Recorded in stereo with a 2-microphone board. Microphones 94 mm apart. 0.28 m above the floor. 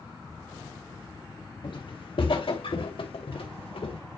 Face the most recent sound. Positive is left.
turn(degrees=85)